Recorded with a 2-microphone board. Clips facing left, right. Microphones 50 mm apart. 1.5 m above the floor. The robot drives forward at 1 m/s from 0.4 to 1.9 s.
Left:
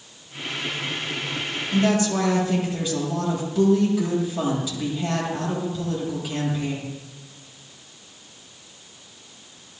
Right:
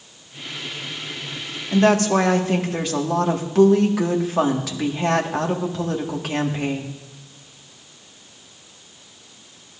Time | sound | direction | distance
1.7 | a woman speaking | 55° right (ahead or behind) | 1.9 m